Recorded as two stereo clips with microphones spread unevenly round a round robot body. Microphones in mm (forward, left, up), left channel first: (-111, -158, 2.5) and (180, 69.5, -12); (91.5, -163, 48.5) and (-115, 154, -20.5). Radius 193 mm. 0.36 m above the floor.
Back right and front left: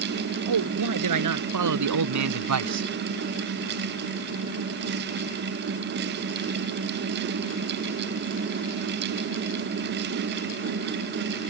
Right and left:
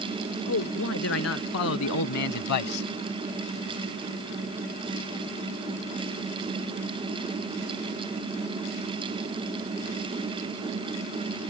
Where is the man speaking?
Straight ahead; by 2.9 s 5° right.